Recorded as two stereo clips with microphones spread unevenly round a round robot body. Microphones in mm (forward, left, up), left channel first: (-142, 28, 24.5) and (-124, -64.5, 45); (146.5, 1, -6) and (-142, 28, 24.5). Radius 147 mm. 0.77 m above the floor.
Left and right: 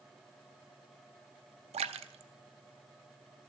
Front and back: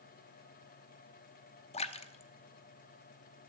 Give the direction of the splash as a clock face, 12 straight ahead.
2 o'clock.